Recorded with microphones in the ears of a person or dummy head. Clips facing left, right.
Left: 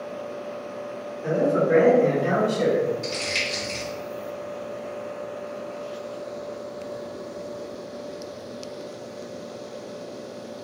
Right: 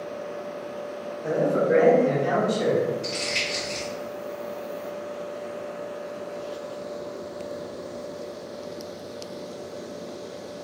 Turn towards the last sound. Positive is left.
turn(degrees=65)  # may be behind; listen again after turning